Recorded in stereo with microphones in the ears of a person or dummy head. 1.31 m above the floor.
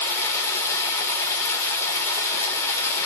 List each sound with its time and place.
0.0 s running water: 20° left (ahead or behind), 2.5 m